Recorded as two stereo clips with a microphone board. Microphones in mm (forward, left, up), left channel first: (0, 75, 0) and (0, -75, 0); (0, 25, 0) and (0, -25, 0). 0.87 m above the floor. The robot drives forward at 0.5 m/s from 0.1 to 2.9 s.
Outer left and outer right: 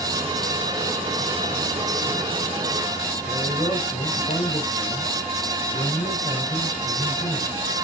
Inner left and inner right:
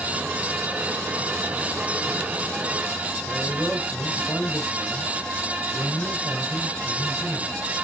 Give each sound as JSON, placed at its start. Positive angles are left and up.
{"t": 3.3, "sound": "a man speaking", "side_deg": 30, "distance_m": 5.5}